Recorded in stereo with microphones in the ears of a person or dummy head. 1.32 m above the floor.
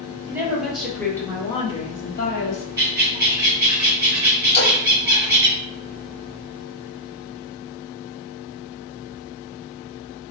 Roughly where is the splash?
Left.